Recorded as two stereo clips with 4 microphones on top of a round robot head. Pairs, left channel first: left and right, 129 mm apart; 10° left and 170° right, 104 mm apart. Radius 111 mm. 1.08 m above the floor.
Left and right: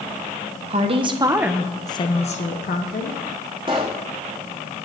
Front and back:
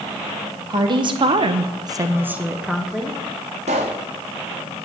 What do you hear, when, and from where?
0.7 s a woman speaking: 125° right, 1.2 m; by 3.2 s 100° left, 1.7 m
3.7 s a pop: 150° right, 0.6 m